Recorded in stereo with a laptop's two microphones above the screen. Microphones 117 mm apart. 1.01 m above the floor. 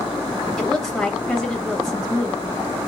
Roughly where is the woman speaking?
Centre.